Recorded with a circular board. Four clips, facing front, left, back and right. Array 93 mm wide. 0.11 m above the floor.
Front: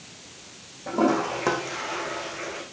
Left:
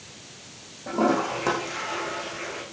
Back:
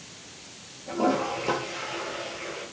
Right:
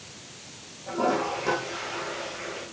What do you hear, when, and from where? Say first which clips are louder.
0.9 s a toilet flushing: left 3 dB, front 3 dB; 25° left, 6.5 m